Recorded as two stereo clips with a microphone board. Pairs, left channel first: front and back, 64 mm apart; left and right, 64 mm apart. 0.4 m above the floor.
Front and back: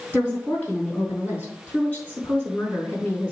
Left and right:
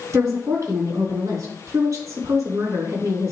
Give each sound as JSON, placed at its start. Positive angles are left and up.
{"t": 0.1, "sound": "a woman speaking", "azimuth_deg": -60, "distance_m": 4.0}